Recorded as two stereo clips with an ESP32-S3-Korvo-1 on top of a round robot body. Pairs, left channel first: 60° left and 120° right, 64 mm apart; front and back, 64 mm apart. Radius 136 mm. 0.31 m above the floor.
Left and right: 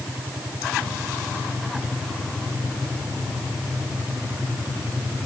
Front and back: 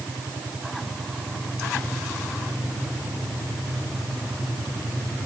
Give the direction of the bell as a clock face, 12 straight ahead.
I don't hear a bell.